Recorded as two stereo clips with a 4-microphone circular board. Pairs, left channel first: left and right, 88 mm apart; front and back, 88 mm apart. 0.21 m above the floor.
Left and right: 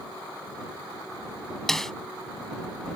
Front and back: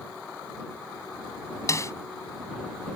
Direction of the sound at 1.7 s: 10° left.